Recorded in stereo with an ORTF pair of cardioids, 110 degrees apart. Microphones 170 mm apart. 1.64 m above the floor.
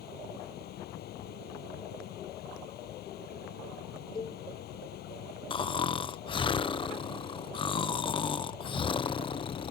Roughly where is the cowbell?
Ahead left.